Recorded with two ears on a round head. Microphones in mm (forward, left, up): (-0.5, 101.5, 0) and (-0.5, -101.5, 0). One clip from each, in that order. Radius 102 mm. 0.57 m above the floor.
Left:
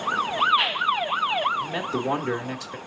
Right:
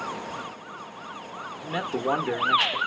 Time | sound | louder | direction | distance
1.6 | a man speaking | left 1 dB | 25° right (ahead or behind) | 1.0 m